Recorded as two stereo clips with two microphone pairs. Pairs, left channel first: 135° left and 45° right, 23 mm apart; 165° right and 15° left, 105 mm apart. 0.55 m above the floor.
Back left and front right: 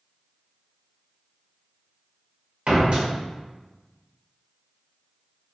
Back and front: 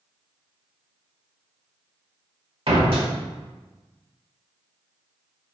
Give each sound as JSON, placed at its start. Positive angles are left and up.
{"t": 2.7, "sound": "a door slam", "azimuth_deg": -10, "distance_m": 1.1}